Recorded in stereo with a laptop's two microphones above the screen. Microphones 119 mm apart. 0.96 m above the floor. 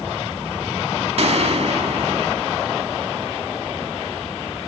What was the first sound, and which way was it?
A gunshot, 60° right (ahead or behind).